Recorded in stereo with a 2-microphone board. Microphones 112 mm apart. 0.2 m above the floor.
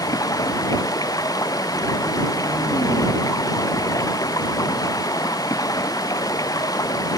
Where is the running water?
30° left (ahead or behind).